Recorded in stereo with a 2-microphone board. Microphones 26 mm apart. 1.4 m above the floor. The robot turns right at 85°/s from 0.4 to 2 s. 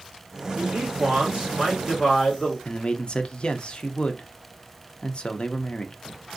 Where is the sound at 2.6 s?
40° left (ahead or behind), 0.5 m.